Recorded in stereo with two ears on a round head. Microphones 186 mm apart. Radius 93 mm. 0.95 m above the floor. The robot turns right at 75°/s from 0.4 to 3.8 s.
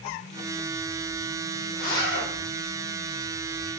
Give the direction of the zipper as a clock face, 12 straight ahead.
10 o'clock.